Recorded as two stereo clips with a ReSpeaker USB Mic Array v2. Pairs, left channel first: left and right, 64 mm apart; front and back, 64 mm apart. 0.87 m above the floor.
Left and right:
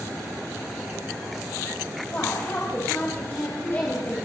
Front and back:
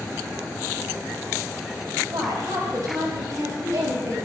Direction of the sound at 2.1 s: 150° left.